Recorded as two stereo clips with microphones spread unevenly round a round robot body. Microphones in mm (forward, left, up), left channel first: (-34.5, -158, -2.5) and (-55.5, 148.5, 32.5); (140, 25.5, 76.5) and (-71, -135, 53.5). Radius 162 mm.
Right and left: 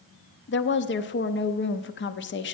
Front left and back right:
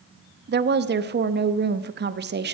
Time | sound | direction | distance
0.5 | a woman speaking | 115° right | 0.8 m